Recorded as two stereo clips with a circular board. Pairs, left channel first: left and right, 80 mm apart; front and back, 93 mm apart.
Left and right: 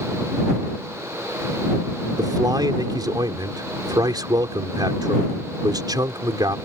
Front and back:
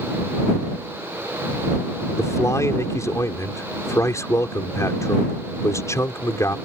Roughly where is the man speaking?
Ahead right.